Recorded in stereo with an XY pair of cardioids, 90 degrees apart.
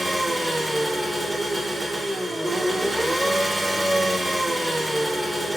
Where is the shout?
No shout in this recording.